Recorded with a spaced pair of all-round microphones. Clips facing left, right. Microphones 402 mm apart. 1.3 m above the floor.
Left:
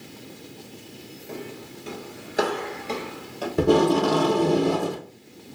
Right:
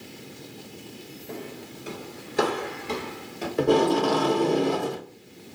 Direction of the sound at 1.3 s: 20° left (ahead or behind).